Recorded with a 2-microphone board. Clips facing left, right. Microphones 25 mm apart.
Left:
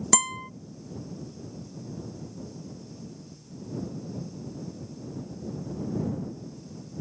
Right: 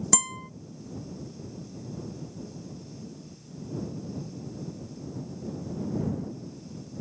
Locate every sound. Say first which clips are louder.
0.1 s a guitar: left 5 dB; 20° left (ahead or behind)